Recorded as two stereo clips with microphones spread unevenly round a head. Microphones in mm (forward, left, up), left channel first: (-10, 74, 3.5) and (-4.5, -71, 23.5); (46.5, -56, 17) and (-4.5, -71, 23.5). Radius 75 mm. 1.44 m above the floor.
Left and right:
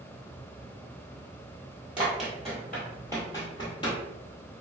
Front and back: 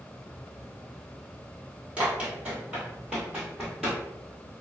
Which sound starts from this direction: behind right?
Running footsteps, at 2.0 s.